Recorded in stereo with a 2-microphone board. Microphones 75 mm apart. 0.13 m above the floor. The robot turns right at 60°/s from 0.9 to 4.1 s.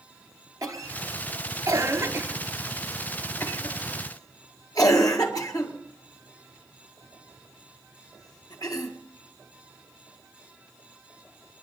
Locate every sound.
0.6 s a cough: 50° right (ahead or behind), 2 m; by 8.9 s 55° left (ahead or behind), 2 m